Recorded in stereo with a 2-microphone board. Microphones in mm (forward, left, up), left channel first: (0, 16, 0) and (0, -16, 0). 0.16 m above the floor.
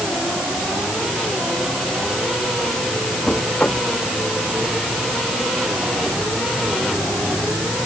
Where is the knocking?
45° left (ahead or behind).